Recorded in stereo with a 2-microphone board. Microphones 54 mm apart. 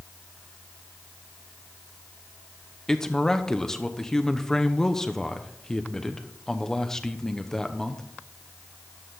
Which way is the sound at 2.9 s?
10° left (ahead or behind).